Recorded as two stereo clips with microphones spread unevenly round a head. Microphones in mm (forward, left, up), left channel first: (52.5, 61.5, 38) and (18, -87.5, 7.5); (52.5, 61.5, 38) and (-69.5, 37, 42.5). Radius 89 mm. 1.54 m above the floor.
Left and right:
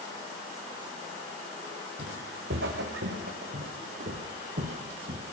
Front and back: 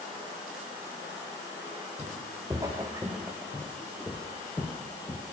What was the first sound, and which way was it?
Footsteps, 100° right.